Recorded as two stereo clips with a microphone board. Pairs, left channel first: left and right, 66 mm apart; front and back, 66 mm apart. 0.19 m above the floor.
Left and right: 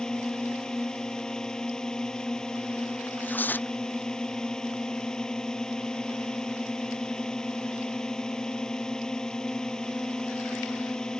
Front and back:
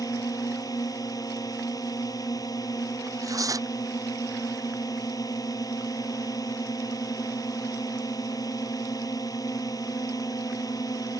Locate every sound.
0.0 s a drone: 10° left
3.1 s tearing paper: 150° left